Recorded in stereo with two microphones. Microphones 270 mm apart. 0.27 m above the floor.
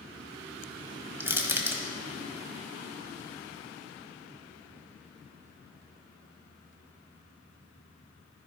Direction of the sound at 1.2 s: 10° right (ahead or behind).